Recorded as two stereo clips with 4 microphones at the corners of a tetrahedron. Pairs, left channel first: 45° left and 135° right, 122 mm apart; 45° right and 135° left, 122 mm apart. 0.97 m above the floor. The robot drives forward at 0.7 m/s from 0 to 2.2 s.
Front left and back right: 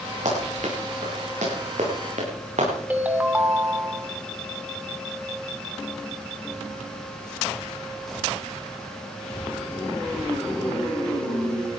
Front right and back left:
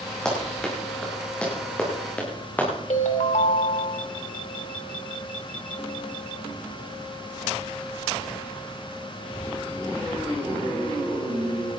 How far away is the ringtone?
About 1.7 m.